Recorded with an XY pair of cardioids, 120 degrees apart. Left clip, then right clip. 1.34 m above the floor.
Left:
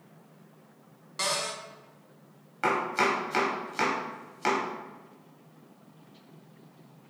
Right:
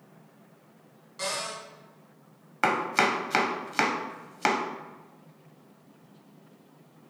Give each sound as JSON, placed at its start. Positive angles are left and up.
{"t": 1.2, "sound": "a cupboard door", "azimuth_deg": 55, "distance_m": 1.0}
{"t": 2.6, "sound": "chopping", "azimuth_deg": -50, "distance_m": 0.8}